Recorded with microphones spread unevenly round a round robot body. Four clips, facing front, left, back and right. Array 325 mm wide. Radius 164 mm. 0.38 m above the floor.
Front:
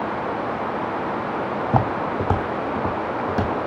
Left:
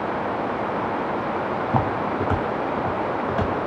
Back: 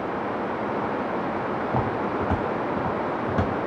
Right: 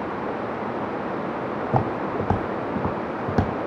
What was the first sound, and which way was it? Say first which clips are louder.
Footsteps: even, front 6 dB; 25° right.